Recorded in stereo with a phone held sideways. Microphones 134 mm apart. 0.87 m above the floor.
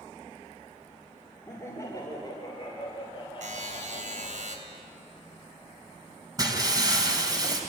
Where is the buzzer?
70° right (ahead or behind), 3.5 m.